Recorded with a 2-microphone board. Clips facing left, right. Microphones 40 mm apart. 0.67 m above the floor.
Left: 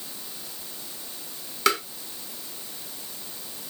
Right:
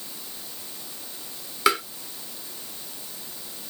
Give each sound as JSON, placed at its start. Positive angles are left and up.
{"t": 1.7, "sound": "tapping", "side_deg": -10, "distance_m": 1.0}